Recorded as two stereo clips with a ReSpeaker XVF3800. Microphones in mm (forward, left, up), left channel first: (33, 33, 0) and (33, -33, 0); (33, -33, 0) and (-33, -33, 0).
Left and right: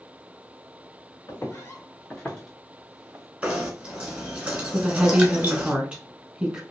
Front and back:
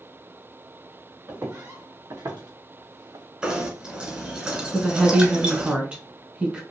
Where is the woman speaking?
140° right, 1.1 m.